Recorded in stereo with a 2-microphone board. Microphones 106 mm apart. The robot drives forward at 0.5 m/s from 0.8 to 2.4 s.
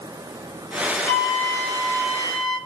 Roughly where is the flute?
Left.